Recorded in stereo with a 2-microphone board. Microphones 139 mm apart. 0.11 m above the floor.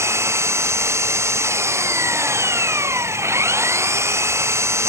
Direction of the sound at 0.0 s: 20° right (ahead or behind).